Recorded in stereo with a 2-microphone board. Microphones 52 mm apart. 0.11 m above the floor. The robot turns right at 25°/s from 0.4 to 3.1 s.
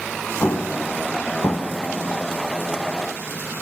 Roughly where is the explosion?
Left.